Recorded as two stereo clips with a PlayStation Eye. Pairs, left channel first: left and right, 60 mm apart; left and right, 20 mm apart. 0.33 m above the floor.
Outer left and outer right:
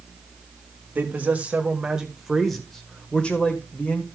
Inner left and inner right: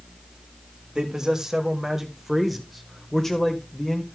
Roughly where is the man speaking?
Right.